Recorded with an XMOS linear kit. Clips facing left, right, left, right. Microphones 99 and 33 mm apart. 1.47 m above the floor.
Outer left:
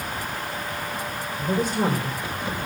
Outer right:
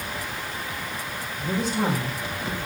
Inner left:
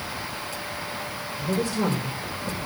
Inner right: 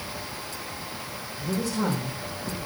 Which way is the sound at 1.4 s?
50° left (ahead or behind).